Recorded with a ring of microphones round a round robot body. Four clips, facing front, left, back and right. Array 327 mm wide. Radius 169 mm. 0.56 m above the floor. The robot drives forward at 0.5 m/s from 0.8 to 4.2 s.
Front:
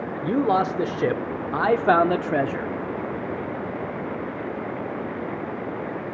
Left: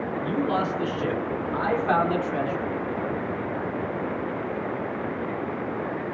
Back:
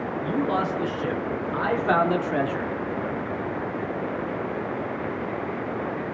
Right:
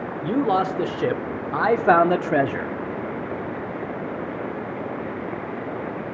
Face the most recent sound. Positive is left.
turn(degrees=-125)